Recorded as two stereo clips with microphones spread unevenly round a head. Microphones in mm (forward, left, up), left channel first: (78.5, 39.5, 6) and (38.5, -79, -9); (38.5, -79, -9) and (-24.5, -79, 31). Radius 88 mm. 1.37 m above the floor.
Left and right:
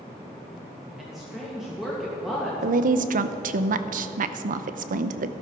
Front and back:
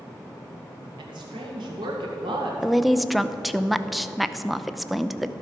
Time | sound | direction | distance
1.0 | a woman speaking | 165° left | 2 m
2.6 | a woman speaking | 100° right | 0.8 m